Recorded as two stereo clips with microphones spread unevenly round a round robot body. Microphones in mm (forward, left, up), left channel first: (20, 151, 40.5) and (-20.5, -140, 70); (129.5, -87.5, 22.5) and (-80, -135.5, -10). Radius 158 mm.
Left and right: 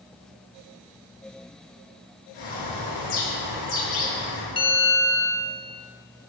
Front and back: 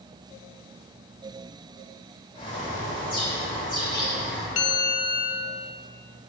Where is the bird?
85° left, 2.5 m.